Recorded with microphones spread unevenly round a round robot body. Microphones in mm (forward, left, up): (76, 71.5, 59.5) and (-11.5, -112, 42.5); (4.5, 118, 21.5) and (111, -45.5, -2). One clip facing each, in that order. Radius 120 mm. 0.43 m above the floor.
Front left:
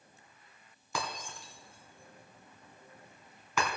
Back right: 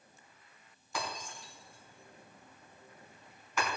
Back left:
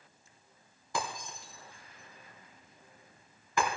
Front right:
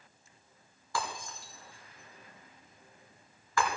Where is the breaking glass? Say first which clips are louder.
Front left 1 dB, even; 55° left, 2.5 m.